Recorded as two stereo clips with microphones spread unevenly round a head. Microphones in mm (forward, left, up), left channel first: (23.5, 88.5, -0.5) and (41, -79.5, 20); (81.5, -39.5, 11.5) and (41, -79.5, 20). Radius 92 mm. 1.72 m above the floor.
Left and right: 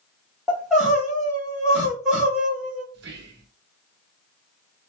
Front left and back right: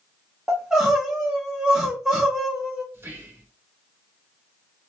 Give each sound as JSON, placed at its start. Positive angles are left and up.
{"t": 0.5, "sound": "crying", "azimuth_deg": -145, "distance_m": 1.3}
{"t": 2.9, "sound": "whispering", "azimuth_deg": -95, "distance_m": 1.2}